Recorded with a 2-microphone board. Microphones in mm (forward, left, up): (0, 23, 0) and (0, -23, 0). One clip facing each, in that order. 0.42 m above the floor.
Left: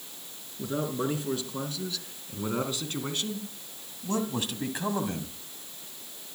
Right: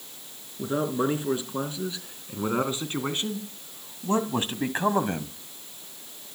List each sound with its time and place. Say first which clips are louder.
0.6 s a man speaking: right 4 dB; 25° right (ahead or behind), 4.5 m; by 5.3 s 40° right (ahead or behind), 1.9 m